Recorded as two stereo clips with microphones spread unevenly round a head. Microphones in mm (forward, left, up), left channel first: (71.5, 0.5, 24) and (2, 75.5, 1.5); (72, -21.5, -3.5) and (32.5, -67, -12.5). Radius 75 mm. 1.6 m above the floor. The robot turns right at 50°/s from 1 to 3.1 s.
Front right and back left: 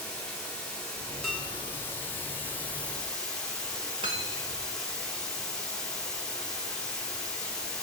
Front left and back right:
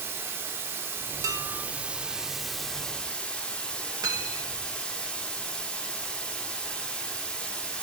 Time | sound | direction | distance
0.0 | running water | 105° right | 1.3 m
1.2 | dishes clattering | 125° right | 0.9 m
4.0 | cutlery clinking | 170° right | 1.0 m